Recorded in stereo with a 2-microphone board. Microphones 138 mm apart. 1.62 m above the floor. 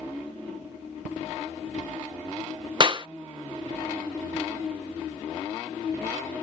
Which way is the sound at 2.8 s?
35° right (ahead or behind).